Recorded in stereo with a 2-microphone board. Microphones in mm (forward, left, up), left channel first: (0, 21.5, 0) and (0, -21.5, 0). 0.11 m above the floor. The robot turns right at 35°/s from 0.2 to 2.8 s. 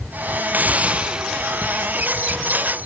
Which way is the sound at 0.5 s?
40° right.